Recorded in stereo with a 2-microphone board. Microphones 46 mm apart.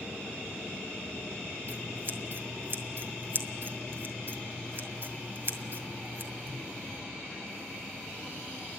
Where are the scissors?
50° right (ahead or behind), 2.0 m.